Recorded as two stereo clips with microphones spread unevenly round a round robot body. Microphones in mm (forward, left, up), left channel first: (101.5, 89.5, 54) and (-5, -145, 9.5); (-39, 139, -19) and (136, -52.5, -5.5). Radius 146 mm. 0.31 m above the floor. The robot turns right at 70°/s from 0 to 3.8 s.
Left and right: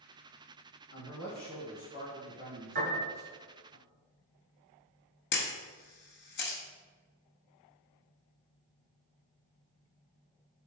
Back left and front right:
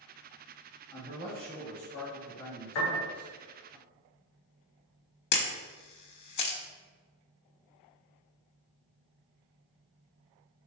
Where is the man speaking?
50° left, 1.5 m; by 3.8 s 110° right, 1.5 m.